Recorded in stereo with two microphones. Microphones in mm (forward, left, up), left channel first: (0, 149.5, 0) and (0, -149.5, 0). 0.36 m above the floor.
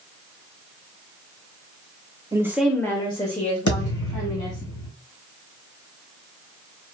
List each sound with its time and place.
2.3 s a woman speaking: 10° right (ahead or behind), 0.9 m; by 4.7 s 30° left (ahead or behind), 2.5 m
3.7 s a thud: 80° left, 1.3 m